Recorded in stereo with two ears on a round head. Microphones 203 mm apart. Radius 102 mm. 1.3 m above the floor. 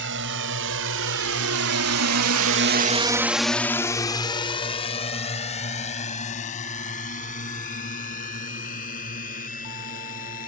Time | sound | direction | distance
0.0 | a drone | 55° right (ahead or behind) | ?